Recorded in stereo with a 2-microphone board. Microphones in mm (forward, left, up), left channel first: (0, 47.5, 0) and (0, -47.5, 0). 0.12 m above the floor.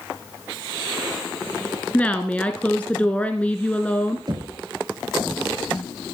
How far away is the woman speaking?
About 1.2 m.